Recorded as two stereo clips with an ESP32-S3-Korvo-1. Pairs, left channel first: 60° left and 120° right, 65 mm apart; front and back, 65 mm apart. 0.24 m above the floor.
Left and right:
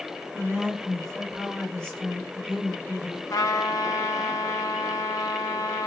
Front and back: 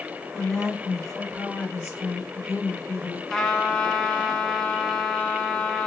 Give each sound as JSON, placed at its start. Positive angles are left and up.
{"t": 0.3, "sound": "a woman speaking", "azimuth_deg": -80, "distance_m": 1.4}
{"t": 3.3, "sound": "a trumpet", "azimuth_deg": 80, "distance_m": 0.5}